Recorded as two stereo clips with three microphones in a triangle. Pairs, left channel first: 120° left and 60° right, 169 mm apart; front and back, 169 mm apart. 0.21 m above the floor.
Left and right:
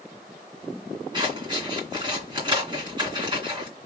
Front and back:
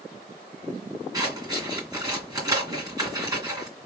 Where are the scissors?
115° right, 2 m.